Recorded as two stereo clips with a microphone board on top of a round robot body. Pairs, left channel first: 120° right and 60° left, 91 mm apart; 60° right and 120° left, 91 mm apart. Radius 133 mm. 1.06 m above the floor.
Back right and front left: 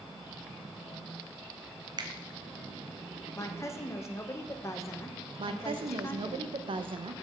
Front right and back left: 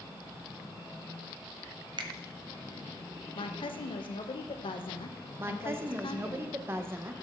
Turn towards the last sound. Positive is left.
turn(degrees=55)